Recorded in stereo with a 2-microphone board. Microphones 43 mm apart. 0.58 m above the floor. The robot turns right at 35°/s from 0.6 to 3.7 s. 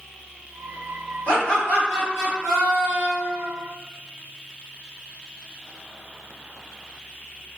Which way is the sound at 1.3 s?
145° left.